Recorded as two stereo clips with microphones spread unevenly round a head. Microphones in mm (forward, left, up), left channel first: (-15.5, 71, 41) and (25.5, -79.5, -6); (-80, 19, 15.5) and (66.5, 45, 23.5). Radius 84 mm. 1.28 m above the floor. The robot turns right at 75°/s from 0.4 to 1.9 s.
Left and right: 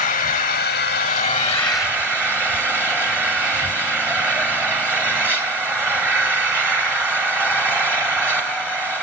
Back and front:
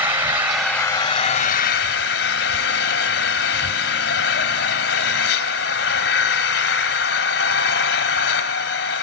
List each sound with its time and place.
0.0 s an engine running: 85° left, 2 m; by 9.0 s 165° right, 2 m